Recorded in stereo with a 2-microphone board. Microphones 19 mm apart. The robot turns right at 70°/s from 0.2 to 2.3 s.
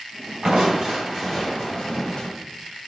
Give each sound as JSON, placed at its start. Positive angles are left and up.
{"t": 0.4, "sound": "crushing", "azimuth_deg": -65, "distance_m": 2.5}